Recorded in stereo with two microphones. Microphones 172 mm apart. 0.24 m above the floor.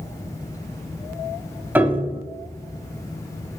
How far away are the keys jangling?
No keys jangling in this recording.